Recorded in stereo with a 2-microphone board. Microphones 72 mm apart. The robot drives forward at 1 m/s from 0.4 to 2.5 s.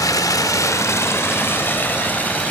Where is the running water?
55° left (ahead or behind), 1.5 m; by 2.5 s 20° left (ahead or behind), 3 m.